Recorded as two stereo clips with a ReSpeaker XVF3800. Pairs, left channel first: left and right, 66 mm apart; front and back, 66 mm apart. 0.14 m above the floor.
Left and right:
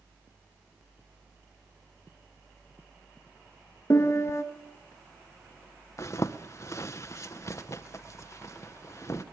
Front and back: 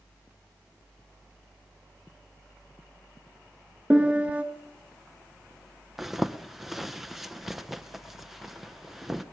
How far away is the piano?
About 1.0 m.